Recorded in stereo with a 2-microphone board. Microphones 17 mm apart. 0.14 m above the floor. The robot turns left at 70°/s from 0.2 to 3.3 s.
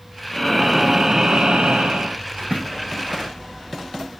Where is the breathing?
20° left, 1.4 m; by 2.2 s 115° right, 1.4 m.